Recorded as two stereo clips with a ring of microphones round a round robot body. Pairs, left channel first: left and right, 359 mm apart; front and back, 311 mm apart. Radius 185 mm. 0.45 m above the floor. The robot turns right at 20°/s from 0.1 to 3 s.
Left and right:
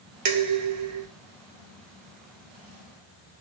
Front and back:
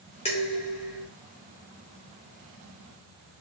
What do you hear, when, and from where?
0.2 s dishes clattering: 65° right, 0.7 m; by 1.1 s 50° right, 0.7 m